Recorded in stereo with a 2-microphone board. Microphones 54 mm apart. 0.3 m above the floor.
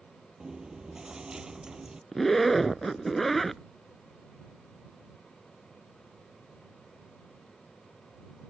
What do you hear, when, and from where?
0.4 s chewing: 15° right (ahead or behind)
2.1 s a zipper: 5° left (ahead or behind)